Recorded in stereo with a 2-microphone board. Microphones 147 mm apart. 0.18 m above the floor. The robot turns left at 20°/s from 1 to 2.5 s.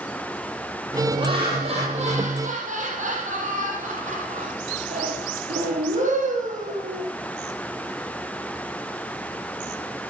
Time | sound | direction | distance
1.2 | laughter | 35° right (ahead or behind) | 6.5 m